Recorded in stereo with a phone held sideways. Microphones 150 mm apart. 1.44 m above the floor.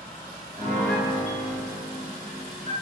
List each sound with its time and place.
0.6 s a piano: 35° left (ahead or behind), 1.5 m